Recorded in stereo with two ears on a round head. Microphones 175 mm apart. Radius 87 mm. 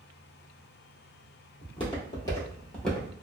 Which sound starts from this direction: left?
Footsteps, at 1.6 s.